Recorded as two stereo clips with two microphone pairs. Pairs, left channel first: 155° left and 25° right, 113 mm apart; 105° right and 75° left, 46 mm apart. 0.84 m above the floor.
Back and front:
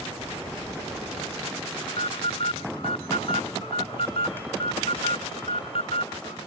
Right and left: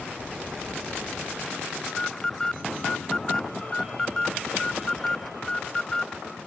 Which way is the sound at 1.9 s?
175° right.